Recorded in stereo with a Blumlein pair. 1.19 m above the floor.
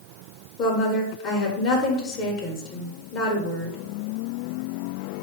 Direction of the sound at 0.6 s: 35° left.